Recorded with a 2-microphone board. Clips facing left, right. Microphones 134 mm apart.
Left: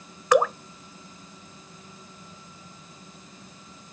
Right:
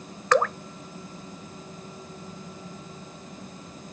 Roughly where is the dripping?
Centre.